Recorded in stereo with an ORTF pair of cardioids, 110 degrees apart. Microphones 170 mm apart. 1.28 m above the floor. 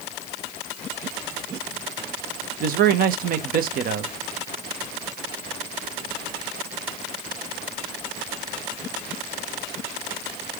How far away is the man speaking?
About 1.1 m.